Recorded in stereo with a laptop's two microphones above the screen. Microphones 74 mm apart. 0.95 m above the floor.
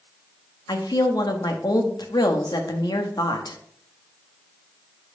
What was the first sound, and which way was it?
A woman speaking, 70° left (ahead or behind).